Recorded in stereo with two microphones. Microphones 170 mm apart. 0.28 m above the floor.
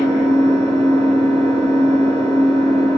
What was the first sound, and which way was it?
An engine running, 35° right (ahead or behind).